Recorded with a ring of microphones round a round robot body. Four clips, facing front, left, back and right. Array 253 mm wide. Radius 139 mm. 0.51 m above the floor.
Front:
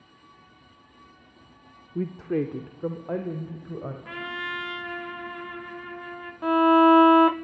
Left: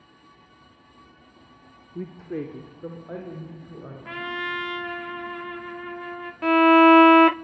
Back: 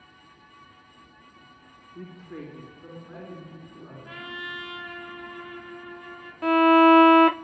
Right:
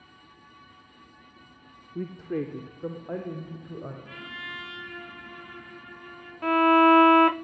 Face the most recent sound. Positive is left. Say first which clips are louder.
# left 4 dB, back 1 dB
turn(degrees=110)